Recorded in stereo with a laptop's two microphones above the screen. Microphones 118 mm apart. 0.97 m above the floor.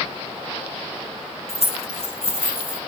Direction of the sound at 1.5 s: 60° left (ahead or behind).